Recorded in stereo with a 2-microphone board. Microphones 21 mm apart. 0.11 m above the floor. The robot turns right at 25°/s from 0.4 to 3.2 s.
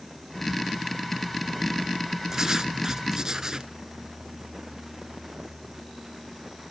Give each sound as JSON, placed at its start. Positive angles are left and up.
{"t": 2.3, "sound": "writing", "side_deg": -30, "distance_m": 0.6}